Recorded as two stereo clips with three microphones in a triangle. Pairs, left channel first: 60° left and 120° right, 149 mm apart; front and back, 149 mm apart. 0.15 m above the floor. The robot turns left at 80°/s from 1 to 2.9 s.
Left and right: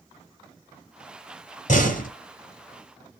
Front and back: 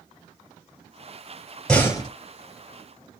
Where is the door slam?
85° left, 3 m; by 2.1 s 50° left, 3 m.